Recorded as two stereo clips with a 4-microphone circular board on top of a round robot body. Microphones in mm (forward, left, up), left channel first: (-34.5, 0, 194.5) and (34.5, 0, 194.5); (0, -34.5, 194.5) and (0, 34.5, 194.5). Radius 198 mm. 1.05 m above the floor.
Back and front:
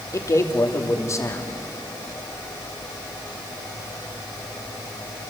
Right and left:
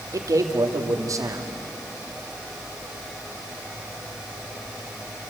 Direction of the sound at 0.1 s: 130° left.